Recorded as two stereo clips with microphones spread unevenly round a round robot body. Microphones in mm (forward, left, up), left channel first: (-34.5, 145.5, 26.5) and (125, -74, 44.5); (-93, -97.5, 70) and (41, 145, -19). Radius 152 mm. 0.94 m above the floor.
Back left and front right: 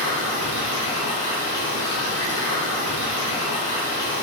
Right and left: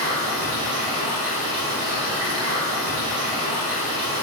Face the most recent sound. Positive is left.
turn(degrees=100)